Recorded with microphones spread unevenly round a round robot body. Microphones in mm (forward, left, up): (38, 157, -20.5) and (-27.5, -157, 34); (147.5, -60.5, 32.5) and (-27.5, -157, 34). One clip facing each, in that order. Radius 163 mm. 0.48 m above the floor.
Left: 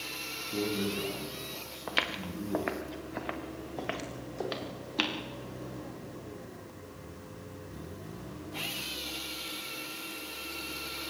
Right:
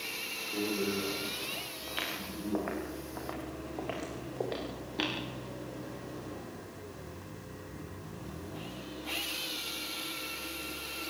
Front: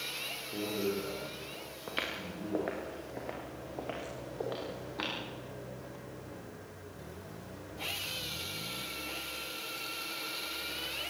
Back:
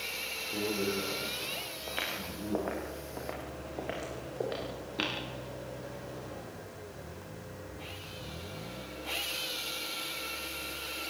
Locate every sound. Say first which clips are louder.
0.5 s a man speaking: left 1 dB, back 1 dB; 120° left, 6 m
1.9 s footsteps: left 5 dB, front 1 dB; 90° left, 3 m; by 5.1 s 140° left, 4.5 m